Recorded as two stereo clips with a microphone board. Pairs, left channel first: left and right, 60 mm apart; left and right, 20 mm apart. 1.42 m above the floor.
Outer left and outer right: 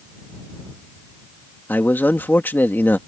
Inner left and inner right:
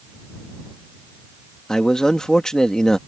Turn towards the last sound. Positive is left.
turn(degrees=35)  # may be behind; listen again after turning